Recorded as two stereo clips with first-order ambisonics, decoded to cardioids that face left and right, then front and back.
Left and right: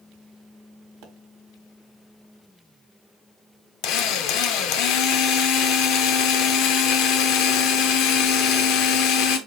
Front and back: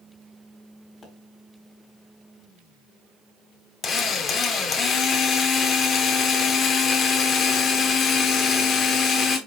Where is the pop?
80° right, 1.6 m.